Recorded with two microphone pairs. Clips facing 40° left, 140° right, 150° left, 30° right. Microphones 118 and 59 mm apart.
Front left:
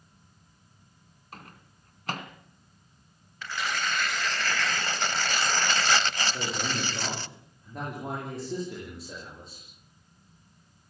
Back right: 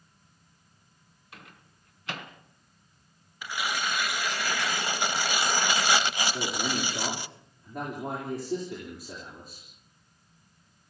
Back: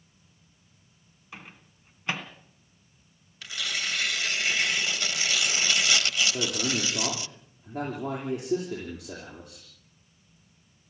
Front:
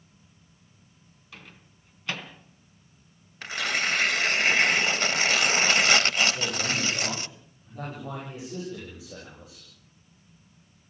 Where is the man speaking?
135° left, 8.5 m.